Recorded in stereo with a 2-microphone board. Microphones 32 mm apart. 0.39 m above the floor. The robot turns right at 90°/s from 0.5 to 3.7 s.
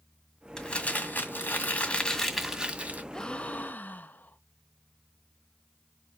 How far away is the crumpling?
About 1.8 m.